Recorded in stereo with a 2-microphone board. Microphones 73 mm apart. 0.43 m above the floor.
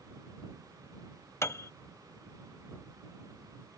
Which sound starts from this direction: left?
A piano, at 1.4 s.